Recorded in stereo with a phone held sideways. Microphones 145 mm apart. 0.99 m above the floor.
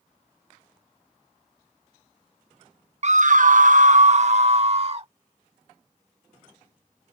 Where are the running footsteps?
No running footsteps in this recording.